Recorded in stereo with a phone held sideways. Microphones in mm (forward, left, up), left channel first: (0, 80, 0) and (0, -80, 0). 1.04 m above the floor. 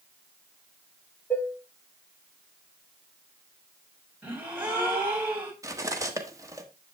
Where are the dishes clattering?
10° left (ahead or behind), 2.0 m.